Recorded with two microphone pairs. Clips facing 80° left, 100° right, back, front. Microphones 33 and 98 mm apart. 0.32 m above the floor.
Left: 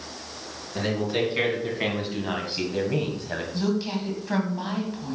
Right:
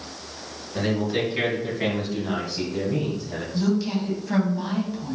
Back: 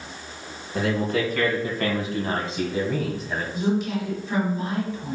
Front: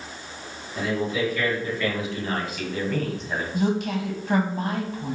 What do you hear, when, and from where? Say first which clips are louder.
0.8 s a man speaking: right 1 dB, back 2 dB; 160° left, 3 m; by 3.4 s 85° left, 1.6 m
3.5 s a woman speaking: right 4 dB, even; 5° left, 2 m